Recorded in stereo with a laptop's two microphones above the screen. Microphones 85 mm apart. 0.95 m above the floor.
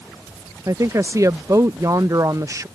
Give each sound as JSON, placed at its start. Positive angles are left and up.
{"t": 0.7, "sound": "a woman speaking", "side_deg": -40}